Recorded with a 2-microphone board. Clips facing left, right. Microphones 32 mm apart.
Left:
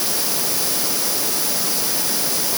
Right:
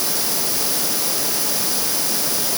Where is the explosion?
No explosion in this recording.